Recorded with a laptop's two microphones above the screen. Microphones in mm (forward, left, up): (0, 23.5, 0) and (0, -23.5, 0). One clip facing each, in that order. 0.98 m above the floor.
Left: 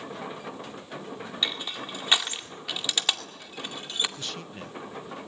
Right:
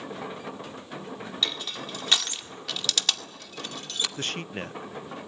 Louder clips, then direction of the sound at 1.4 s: Even; 20° left (ahead or behind).